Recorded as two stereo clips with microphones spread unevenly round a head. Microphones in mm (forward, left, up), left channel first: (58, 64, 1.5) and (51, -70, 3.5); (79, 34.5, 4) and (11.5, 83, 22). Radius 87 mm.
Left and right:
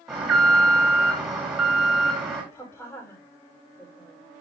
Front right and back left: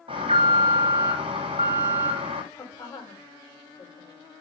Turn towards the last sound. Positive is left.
turn(degrees=15)